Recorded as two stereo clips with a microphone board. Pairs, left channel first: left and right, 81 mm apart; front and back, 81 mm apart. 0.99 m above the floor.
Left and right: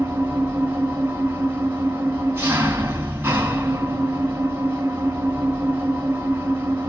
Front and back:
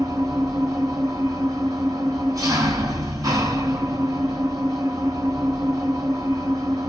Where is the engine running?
145° right, 1.4 m.